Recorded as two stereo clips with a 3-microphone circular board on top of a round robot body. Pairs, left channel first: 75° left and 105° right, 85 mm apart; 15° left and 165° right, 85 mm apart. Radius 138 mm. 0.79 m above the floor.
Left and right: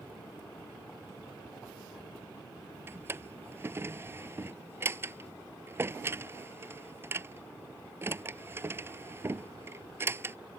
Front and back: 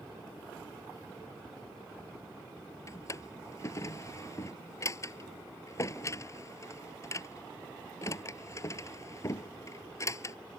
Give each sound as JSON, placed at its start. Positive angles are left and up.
{"t": 2.9, "sound": "a drawer", "azimuth_deg": -45}